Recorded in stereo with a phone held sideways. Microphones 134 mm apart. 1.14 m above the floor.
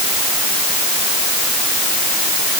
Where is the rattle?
No rattle in this recording.